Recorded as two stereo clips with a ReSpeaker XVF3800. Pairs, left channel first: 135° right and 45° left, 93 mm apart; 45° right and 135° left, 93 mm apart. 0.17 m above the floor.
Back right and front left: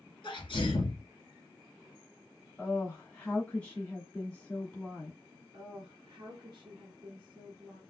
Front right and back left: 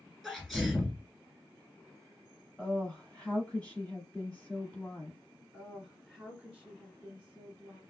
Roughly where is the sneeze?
Behind right.